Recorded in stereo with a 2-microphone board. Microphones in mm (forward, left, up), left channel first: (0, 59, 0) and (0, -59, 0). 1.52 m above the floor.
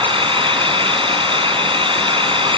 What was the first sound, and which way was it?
An engine running, 45° right (ahead or behind).